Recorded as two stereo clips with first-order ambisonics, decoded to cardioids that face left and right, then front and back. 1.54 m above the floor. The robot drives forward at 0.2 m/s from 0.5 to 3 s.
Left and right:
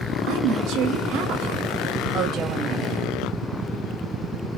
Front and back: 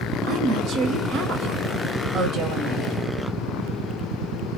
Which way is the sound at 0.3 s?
125° right.